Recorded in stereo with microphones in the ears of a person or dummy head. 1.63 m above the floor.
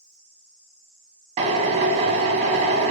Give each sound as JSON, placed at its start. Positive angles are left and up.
{"t": 1.4, "sound": "a drill", "side_deg": -35, "distance_m": 0.6}